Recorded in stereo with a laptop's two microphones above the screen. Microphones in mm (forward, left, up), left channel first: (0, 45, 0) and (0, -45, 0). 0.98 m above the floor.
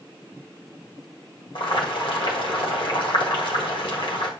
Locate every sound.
1.6 s boiling: 70° left (ahead or behind), 1.8 m